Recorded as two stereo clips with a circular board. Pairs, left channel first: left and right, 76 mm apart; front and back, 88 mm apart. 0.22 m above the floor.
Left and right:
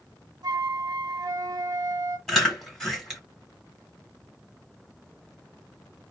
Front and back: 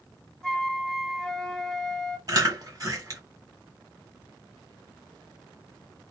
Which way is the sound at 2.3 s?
175° left.